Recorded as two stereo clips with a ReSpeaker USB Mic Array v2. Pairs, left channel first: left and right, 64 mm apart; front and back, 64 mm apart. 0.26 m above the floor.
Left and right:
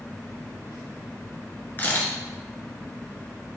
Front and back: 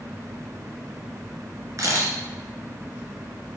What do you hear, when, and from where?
1.8 s a camera shutter: 150° left, 1.6 m